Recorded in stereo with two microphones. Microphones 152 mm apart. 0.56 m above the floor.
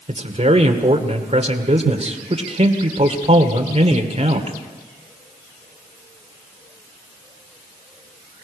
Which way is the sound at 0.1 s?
45° right (ahead or behind).